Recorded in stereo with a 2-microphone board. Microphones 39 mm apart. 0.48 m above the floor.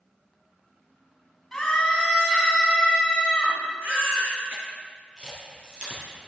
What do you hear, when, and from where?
1.5 s a scream: 15° left (ahead or behind), 3 m
3.8 s a baby crying: 40° right (ahead or behind), 3.5 m
5.2 s a camera shutter: 20° right (ahead or behind), 4 m